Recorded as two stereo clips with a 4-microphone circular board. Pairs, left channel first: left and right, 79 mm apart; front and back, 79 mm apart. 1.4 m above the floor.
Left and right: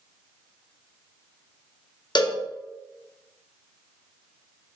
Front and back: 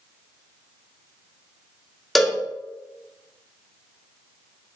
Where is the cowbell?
90° left, 0.9 m.